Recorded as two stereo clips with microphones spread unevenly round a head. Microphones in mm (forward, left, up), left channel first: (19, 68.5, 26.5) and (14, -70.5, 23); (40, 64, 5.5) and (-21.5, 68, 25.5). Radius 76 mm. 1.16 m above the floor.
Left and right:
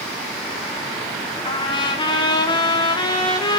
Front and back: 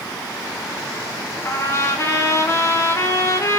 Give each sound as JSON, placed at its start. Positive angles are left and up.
{"t": 1.4, "sound": "a trumpet", "azimuth_deg": 30, "distance_m": 3.5}